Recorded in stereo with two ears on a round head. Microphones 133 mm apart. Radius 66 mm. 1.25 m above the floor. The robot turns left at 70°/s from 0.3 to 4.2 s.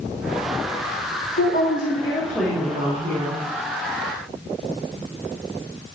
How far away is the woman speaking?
About 1.4 m.